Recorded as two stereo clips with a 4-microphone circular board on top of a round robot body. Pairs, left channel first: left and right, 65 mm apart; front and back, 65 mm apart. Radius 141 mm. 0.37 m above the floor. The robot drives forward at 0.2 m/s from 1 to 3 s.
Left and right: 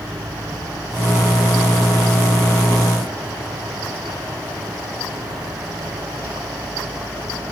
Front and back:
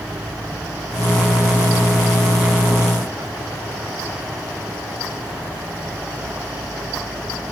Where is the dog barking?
No dog barking in this recording.